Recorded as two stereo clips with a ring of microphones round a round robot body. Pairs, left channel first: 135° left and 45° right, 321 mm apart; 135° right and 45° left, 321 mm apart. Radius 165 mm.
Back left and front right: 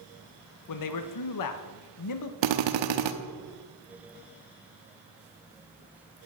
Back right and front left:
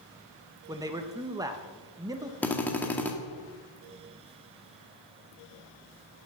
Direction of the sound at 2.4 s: 50° right.